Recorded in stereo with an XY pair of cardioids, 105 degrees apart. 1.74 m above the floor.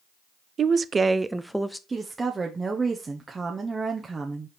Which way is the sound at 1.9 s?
25° right.